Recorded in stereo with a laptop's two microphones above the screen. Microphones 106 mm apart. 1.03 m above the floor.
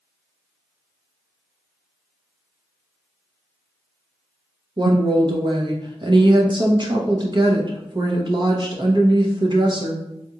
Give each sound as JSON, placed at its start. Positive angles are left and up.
{"t": 4.8, "sound": "a woman speaking", "side_deg": -50, "distance_m": 0.8}